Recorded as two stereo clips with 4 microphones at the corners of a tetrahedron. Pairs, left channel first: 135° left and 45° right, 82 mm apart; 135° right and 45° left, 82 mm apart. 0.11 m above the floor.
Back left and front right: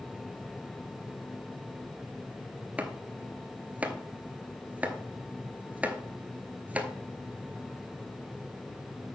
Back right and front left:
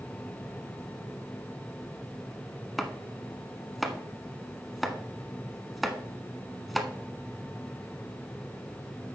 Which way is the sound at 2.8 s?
45° right.